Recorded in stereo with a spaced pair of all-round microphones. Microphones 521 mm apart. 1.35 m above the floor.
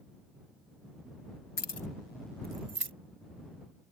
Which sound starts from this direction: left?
Keys jangling, at 1.6 s.